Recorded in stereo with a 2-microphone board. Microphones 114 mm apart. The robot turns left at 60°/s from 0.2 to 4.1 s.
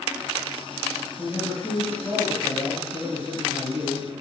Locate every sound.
1.2 s a man speaking: 15° left (ahead or behind), 1.4 m; by 4.1 s 10° right (ahead or behind), 1.4 m